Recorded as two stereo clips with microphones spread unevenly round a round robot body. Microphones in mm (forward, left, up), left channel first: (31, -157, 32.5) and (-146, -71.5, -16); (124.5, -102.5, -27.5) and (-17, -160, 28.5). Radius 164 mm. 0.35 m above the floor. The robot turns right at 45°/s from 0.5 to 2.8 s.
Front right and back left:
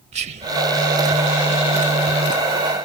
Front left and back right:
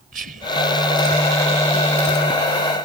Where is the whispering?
145° left; by 0.6 s 150° left.